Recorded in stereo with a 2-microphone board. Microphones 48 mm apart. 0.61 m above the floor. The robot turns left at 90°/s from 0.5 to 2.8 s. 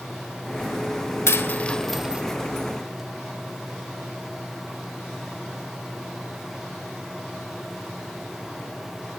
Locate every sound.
1.3 s a dropped coin: 60° left (ahead or behind), 0.8 m; by 2.2 s 25° right (ahead or behind), 0.8 m